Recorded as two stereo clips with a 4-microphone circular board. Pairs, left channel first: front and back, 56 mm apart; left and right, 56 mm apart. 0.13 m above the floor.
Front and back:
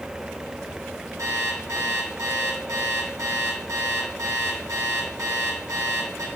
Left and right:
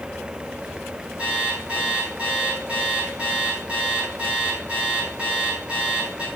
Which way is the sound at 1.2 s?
160° right.